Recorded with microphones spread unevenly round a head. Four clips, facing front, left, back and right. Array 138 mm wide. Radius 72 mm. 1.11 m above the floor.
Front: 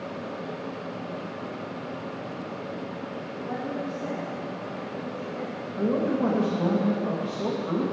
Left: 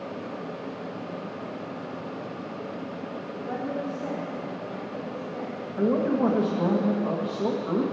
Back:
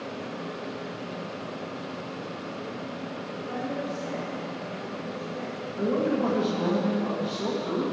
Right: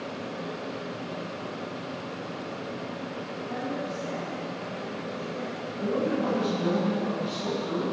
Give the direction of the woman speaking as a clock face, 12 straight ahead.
10 o'clock.